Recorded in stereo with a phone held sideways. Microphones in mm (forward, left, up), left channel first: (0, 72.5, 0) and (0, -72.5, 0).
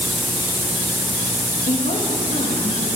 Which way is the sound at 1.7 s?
55° left (ahead or behind).